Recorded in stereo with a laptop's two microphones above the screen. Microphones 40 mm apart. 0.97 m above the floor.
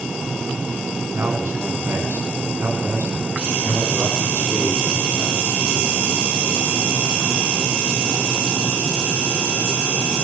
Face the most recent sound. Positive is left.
turn(degrees=-50)  # may be behind; listen again after turning